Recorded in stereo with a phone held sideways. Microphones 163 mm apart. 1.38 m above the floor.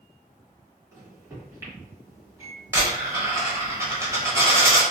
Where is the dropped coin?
20° right (ahead or behind), 1.2 m.